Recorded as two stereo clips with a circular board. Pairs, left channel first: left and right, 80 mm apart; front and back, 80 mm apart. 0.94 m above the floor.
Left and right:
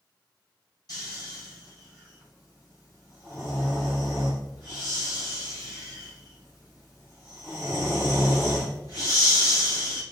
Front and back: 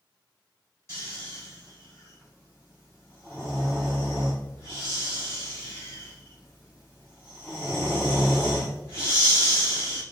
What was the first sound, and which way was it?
Snoring, 55° left.